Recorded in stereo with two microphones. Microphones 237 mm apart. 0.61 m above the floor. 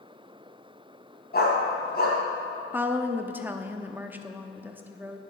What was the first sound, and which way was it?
A dog barking, 45° left (ahead or behind).